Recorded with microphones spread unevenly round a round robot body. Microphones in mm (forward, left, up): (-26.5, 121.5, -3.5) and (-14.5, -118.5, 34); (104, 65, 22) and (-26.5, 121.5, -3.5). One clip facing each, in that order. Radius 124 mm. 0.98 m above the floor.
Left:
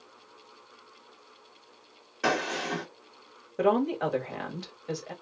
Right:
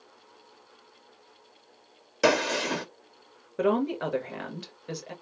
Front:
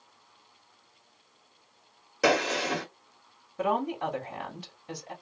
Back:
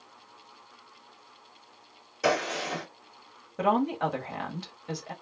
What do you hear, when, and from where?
2.2 s a gunshot: 60° right, 0.9 m
3.6 s a woman speaking: 170° right, 1.3 m